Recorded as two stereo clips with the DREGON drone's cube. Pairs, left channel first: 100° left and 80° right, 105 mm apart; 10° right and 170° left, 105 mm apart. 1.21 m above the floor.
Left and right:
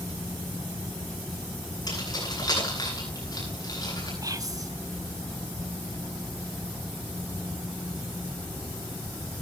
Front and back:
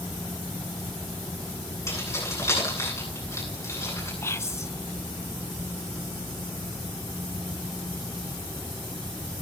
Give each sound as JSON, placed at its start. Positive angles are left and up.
{"t": 1.9, "sound": "keys jangling", "azimuth_deg": 50, "distance_m": 9.5}
{"t": 4.2, "sound": "whispering", "azimuth_deg": -60, "distance_m": 0.7}